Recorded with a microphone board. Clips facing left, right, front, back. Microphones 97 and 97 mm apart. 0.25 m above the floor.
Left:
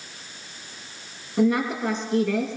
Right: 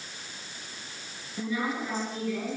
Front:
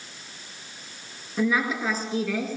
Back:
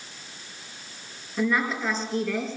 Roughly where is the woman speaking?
Left.